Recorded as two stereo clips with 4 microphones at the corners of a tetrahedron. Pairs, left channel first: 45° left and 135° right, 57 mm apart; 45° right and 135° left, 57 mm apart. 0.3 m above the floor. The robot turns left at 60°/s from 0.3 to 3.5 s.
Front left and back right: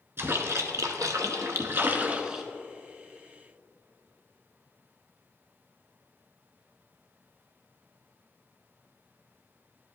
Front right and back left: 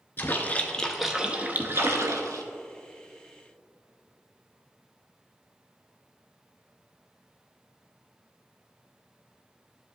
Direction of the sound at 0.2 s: 95° right.